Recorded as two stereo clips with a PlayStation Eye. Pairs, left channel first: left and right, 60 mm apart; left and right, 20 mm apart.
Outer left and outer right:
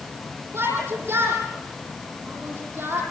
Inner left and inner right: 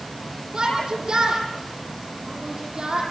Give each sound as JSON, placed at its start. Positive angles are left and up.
{"t": 0.5, "sound": "a shout", "side_deg": -50, "distance_m": 9.5}